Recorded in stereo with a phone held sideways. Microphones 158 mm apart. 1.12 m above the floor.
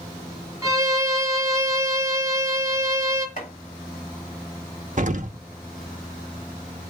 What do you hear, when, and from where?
0.6 s a violin: 20° right (ahead or behind), 1.1 m
3.4 s chopping: 60° left (ahead or behind), 4 m
5.0 s an explosion: 55° right (ahead or behind), 0.7 m